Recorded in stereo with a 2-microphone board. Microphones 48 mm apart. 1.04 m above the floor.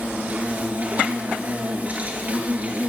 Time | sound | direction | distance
0.0 | an insect | 30° right (ahead or behind) | 2.5 m